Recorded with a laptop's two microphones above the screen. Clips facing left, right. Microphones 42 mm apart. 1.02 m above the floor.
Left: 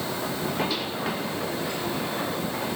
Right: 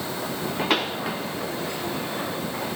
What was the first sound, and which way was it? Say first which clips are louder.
A pop: right 5 dB; 65° right (ahead or behind).